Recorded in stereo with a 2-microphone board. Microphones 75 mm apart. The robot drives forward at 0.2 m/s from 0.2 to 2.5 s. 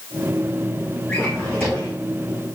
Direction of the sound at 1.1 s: 15° left (ahead or behind).